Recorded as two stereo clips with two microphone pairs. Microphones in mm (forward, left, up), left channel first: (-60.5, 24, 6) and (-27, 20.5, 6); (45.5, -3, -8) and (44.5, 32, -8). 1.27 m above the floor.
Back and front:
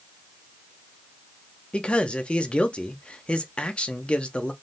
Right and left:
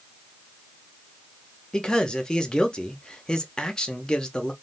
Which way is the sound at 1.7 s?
150° right.